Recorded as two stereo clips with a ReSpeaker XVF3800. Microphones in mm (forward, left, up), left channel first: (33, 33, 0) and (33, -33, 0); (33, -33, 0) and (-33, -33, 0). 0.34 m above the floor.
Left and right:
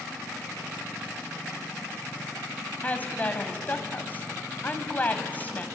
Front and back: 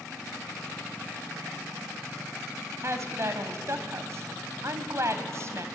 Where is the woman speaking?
150° left, 2 m.